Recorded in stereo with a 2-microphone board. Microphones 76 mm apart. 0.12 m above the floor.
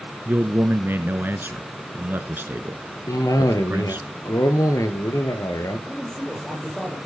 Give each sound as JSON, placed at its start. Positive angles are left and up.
{"t": 0.2, "sound": "a man speaking", "side_deg": -30, "distance_m": 1.4}
{"t": 3.1, "sound": "a cough", "side_deg": 55, "distance_m": 1.8}
{"t": 5.9, "sound": "a man speaking", "side_deg": 5, "distance_m": 4.5}